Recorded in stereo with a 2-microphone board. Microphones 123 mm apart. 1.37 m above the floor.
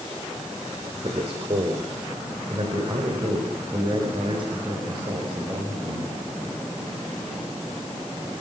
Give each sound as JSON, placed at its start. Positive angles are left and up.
{"t": 1.0, "sound": "a man speaking", "side_deg": -50, "distance_m": 4.5}